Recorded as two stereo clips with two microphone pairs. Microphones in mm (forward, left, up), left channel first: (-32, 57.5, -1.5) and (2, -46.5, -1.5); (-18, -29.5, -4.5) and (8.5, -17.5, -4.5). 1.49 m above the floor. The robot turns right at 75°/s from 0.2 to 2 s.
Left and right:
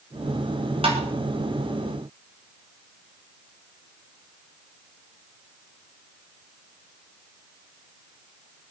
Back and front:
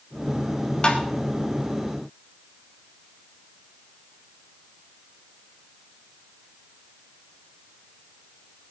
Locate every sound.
0.8 s tapping: 105° right, 3 m; by 1.0 s 95° right, 3 m